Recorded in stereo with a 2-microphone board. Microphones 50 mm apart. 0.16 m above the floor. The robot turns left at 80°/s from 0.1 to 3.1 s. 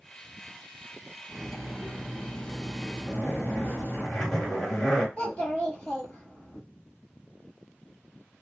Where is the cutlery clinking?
160° right, 1.1 m; by 4.0 s 55° left, 1.1 m.